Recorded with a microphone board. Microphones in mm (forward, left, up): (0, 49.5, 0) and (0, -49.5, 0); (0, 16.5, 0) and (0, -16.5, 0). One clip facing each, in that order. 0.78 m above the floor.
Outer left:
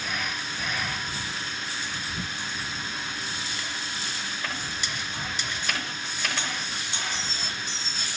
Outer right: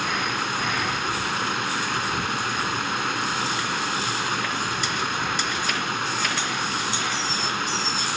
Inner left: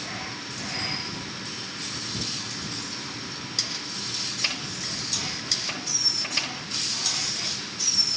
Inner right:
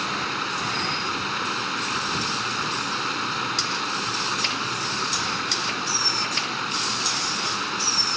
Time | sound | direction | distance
0.0 | running water | 70° right (ahead or behind) | ?